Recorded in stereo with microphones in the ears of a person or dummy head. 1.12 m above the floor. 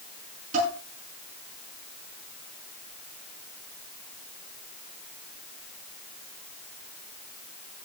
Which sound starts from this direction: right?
Dishes clattering, at 0.5 s.